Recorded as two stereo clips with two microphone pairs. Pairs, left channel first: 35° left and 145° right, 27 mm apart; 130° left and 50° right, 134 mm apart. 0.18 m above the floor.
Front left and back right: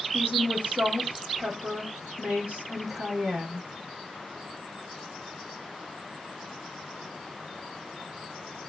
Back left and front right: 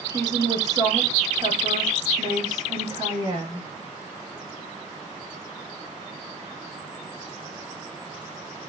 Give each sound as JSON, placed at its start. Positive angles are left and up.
{"t": 0.1, "sound": "a woman speaking", "azimuth_deg": -115, "distance_m": 7.5}